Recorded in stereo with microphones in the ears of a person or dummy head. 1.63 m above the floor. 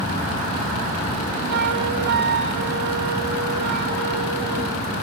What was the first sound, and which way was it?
A flute, 50° right (ahead or behind).